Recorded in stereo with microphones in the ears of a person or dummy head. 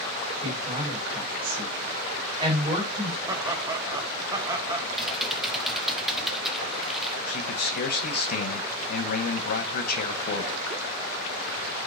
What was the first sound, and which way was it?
A woman speaking, 30° right (ahead or behind).